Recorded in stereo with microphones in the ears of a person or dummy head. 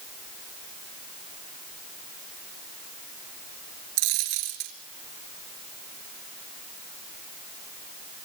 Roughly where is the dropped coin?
Right.